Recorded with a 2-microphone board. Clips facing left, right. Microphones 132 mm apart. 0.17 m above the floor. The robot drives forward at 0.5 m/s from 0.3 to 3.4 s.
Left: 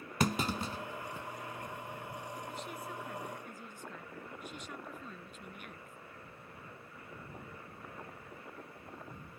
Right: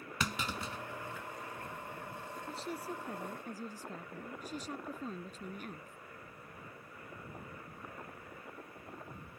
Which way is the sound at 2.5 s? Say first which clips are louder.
Right 2 dB; 35° right (ahead or behind).